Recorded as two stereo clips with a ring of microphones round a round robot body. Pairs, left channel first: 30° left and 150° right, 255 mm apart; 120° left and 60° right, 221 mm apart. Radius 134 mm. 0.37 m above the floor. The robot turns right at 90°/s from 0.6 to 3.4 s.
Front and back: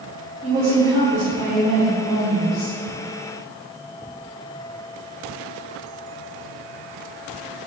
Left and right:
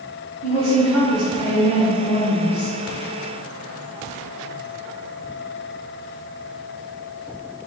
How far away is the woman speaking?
About 1.1 m.